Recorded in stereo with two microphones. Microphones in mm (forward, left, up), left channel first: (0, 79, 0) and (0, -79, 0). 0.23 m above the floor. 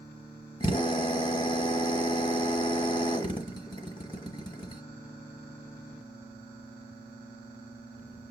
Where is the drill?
30° left (ahead or behind), 1.6 m.